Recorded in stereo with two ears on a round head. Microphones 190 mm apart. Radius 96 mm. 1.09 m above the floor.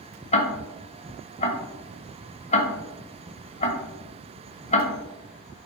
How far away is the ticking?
About 1.0 m.